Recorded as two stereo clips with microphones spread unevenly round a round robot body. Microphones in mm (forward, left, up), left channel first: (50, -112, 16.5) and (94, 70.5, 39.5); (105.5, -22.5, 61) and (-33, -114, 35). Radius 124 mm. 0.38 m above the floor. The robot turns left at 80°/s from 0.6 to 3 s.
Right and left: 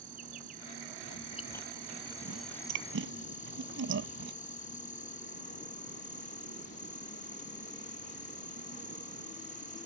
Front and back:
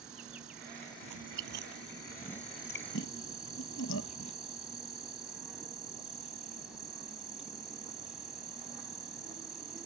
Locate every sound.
0.0 s an insect: 130° left; by 9.9 s 60° right
1.0 s chewing: 145° right; by 4.3 s 60° left